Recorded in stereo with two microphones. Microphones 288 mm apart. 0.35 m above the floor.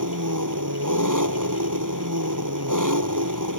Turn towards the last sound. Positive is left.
turn(degrees=-85)